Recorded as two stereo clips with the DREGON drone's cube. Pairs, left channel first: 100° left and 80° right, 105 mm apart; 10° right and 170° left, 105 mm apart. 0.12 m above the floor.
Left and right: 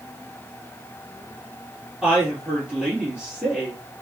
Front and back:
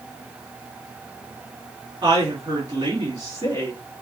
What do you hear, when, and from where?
2.0 s a woman speaking: 160° right, 2 m